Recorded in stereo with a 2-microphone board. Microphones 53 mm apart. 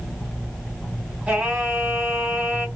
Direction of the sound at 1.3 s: 20° right (ahead or behind).